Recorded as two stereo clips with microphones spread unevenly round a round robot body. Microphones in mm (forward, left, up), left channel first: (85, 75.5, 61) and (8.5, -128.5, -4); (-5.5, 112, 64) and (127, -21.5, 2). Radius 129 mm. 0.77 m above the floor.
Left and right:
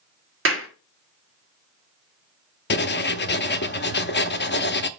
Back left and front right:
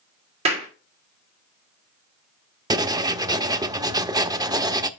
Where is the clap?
100° right, 1.8 m.